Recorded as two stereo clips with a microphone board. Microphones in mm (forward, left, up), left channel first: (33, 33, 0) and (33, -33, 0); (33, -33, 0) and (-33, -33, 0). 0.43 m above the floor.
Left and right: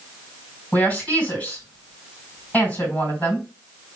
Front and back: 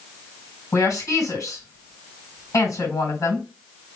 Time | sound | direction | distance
0.7 | a woman speaking | 20° left | 3 m